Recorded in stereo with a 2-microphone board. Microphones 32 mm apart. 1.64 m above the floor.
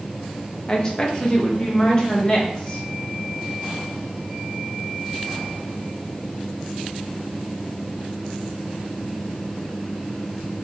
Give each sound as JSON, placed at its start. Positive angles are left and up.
{"t": 0.7, "sound": "a woman speaking", "side_deg": 20, "distance_m": 0.8}